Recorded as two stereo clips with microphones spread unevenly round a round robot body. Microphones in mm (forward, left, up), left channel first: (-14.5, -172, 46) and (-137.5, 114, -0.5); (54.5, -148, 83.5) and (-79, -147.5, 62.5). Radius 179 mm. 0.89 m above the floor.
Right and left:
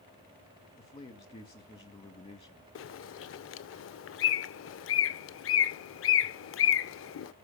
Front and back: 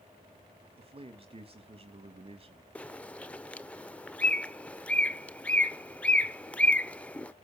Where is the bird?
70° right, 0.7 m.